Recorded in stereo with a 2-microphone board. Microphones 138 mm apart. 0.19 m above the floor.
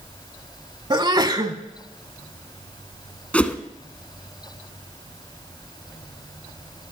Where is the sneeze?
30° right (ahead or behind), 1.1 m.